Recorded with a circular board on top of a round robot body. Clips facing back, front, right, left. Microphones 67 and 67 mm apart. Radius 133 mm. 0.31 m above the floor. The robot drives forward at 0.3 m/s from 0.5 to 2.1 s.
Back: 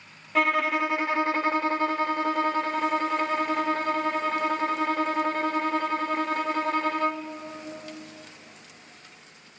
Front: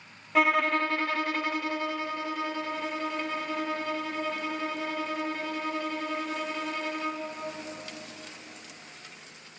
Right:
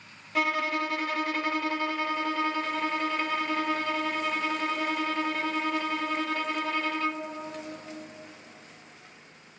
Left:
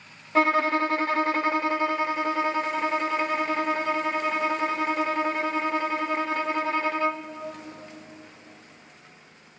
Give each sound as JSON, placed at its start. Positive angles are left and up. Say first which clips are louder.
{"t": 0.3, "sound": "a violin", "louder": "even, left 6 dB", "azimuth_deg": 85, "distance_m": 0.5}